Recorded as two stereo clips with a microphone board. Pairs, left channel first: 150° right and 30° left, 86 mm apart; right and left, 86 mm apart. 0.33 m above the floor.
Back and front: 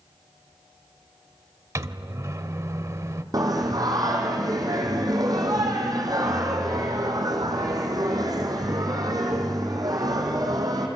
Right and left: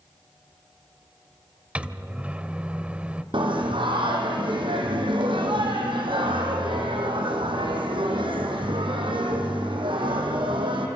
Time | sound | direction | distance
1.8 | a microwave | 25° left | 0.9 m
3.3 | singing | 75° left | 3.5 m